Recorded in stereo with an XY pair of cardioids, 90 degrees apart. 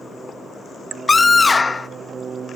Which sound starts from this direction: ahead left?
A scream, at 1.1 s.